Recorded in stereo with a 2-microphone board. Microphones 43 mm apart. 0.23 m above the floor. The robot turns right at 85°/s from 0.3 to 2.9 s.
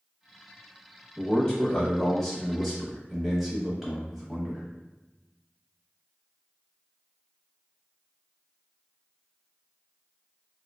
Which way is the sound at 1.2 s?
15° left (ahead or behind).